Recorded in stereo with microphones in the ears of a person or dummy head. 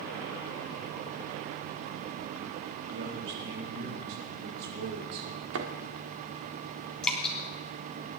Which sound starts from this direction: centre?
Dripping, at 7.0 s.